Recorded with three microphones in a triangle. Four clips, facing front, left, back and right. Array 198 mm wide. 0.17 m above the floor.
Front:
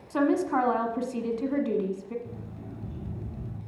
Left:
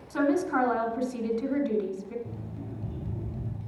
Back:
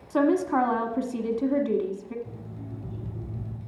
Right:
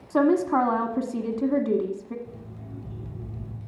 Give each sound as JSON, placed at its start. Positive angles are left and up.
{"t": 0.1, "sound": "a woman speaking", "azimuth_deg": -95, "distance_m": 1.3}
{"t": 2.2, "sound": "an alarm clock", "azimuth_deg": 75, "distance_m": 5.0}